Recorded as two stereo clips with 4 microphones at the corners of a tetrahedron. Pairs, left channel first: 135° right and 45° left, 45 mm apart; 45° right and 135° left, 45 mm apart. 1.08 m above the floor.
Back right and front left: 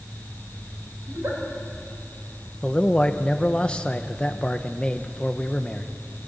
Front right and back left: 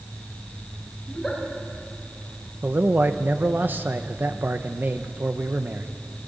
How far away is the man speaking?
About 0.8 m.